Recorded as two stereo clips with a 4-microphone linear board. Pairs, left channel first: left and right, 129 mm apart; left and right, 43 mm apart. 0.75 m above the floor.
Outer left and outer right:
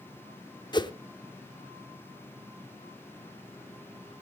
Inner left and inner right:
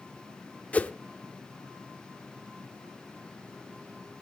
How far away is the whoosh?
About 0.7 m.